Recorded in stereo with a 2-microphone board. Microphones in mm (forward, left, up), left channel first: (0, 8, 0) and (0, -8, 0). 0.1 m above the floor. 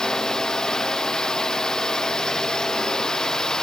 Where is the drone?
45° left (ahead or behind).